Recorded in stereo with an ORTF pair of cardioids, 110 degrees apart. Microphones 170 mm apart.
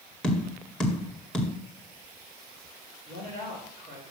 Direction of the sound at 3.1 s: 65° right.